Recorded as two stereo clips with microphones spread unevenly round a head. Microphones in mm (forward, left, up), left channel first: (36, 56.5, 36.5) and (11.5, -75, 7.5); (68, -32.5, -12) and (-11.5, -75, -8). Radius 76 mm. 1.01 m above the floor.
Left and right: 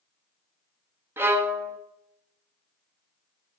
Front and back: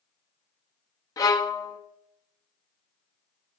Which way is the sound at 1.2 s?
25° right.